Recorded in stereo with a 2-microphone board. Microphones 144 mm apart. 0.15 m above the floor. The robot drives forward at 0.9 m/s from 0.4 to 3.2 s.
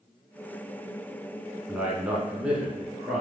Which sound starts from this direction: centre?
A man speaking, at 1.7 s.